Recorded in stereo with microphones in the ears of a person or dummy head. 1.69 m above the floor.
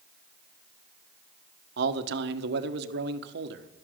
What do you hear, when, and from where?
1.8 s a man speaking: 65° right (ahead or behind), 1.2 m